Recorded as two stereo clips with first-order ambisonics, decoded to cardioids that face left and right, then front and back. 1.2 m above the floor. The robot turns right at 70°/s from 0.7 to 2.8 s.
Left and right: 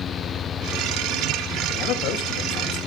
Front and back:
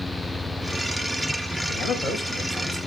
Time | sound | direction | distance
1.7 | a man speaking | 45° left | 1.9 m